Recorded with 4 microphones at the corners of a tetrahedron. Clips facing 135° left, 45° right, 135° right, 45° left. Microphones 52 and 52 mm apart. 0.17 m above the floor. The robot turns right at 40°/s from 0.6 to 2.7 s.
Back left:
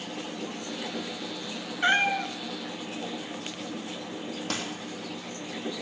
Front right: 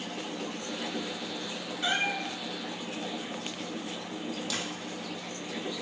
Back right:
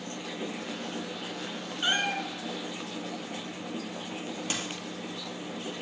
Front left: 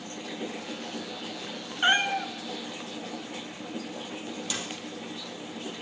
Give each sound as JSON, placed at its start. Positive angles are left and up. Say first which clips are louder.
{"t": 1.8, "sound": "a cat meowing", "louder": "back left 6 dB, front left 5 dB", "azimuth_deg": 95, "distance_m": 1.0}
{"t": 4.5, "sound": "a dropped coin", "louder": "back left 2 dB, back right 1 dB", "azimuth_deg": 175, "distance_m": 2.5}